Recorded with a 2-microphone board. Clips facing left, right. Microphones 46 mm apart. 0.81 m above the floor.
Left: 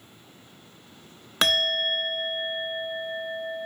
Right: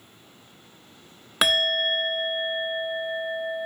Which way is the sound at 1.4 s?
10° right (ahead or behind).